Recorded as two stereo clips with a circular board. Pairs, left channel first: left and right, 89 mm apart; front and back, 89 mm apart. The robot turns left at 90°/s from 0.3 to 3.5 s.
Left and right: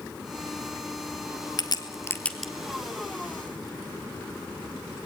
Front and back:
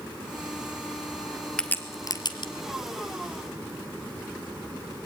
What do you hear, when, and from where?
1.6 s a crack: 80° left, 1.5 m; by 2.5 s 5° right, 1.5 m